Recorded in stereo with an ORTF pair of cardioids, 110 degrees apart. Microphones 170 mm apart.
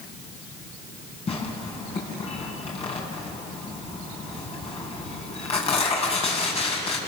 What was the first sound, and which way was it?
Tearing paper, 35° left.